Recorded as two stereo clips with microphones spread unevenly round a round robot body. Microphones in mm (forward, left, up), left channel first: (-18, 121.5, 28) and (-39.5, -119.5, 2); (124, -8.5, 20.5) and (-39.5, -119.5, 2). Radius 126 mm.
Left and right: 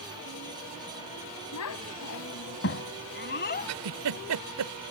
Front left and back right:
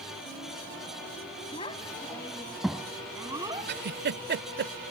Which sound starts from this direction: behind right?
A giggle, at 3.7 s.